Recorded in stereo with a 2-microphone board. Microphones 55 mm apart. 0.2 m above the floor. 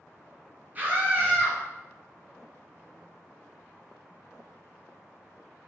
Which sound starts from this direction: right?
A scream, at 0.8 s.